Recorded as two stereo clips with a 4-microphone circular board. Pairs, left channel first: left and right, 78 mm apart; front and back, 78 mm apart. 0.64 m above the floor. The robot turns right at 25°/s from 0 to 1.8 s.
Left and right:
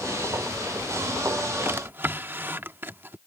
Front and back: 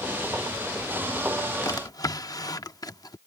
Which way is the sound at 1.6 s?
35° right.